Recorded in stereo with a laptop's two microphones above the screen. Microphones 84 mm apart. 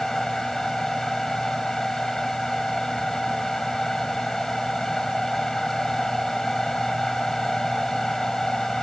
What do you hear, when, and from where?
0.0 s a fan: 5° left (ahead or behind)